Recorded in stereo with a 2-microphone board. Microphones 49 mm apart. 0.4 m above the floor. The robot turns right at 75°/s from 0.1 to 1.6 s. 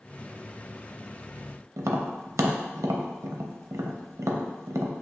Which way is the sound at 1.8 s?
75° right (ahead or behind).